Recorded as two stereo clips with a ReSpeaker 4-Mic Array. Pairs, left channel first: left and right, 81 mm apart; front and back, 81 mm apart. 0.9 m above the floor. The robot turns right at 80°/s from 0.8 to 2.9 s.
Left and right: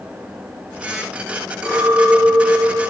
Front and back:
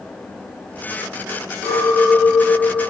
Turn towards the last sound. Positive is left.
turn(degrees=-65)